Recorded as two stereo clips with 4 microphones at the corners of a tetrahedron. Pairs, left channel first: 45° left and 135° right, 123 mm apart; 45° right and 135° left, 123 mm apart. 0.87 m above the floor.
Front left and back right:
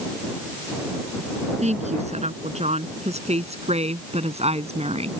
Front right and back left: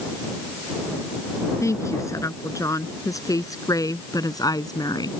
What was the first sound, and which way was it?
A woman speaking, 110° right.